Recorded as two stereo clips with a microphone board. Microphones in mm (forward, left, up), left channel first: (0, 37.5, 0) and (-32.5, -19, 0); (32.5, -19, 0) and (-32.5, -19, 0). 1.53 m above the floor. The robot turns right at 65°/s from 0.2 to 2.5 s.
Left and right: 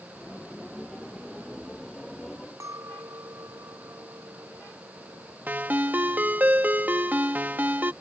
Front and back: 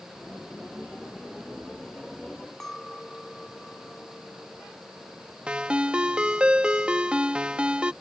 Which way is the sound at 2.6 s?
85° right.